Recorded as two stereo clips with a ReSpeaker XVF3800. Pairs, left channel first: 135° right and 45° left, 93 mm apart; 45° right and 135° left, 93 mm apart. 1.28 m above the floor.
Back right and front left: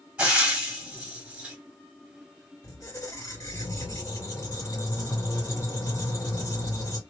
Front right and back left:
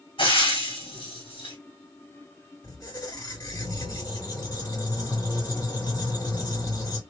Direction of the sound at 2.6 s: 85° right.